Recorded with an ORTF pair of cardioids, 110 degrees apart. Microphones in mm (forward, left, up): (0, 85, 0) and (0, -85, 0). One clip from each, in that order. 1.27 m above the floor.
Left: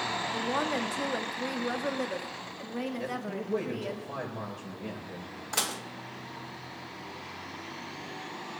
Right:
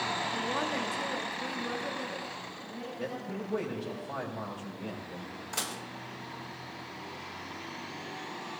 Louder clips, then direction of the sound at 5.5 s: Left 5 dB; 25° left.